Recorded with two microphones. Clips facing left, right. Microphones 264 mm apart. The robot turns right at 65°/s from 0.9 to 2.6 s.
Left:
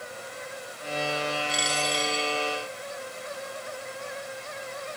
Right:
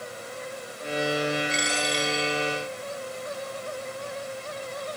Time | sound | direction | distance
1.5 | a dropped coin | 65° left | 1.6 m